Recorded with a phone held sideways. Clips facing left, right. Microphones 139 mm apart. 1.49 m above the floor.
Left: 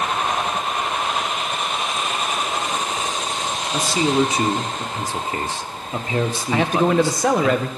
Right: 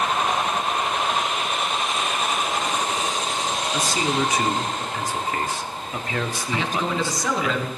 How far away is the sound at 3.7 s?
About 0.9 m.